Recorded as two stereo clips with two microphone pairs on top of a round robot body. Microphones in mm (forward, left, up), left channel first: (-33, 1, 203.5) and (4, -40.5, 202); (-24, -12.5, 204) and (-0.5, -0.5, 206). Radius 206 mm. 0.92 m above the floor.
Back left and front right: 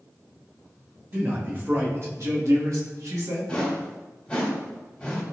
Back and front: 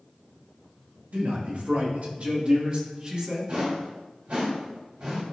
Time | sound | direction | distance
1.1 | a man speaking | 5° left | 2.5 m
3.5 | a whoosh | 60° left | 1.5 m